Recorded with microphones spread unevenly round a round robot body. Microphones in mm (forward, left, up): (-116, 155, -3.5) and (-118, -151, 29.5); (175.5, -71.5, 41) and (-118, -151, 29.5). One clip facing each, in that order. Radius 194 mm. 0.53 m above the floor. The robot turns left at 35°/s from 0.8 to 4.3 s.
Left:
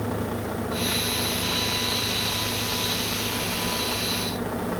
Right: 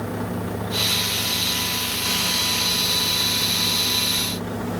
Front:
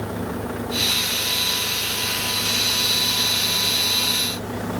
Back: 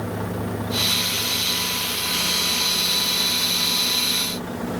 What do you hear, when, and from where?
Only background noise.